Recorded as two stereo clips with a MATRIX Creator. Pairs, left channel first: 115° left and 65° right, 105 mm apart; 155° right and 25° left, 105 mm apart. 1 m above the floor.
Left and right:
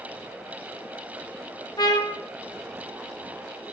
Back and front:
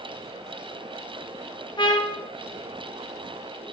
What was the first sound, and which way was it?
A trumpet, 160° left.